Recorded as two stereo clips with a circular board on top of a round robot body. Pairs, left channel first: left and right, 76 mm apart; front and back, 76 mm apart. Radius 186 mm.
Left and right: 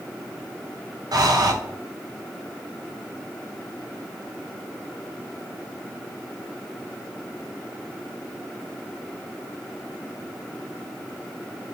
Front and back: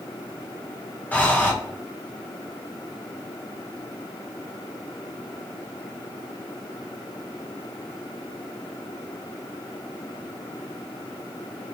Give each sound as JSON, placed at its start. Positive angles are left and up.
{"t": 1.1, "sound": "breathing", "azimuth_deg": -65, "distance_m": 0.8}